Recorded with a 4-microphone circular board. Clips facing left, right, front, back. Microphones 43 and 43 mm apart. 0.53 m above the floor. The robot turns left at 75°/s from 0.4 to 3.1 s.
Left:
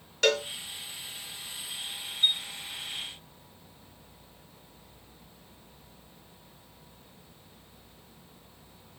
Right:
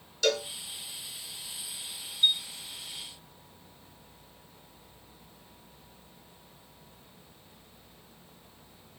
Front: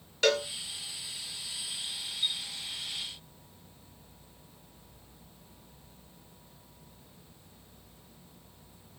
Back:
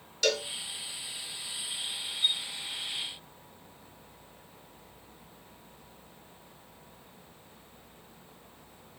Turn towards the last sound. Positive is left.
turn(degrees=10)